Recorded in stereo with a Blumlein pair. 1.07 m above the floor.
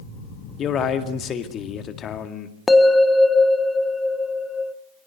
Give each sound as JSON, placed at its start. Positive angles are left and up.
{"t": 0.6, "sound": "a man speaking", "azimuth_deg": 25, "distance_m": 1.9}
{"t": 2.7, "sound": "a bell", "azimuth_deg": 10, "distance_m": 1.3}